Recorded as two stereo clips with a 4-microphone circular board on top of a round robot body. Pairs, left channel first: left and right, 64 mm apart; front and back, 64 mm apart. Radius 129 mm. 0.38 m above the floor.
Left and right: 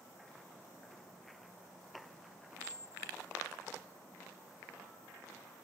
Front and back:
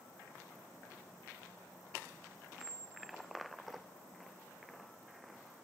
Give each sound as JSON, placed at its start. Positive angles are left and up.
{"t": 2.6, "sound": "a squeak", "azimuth_deg": 155}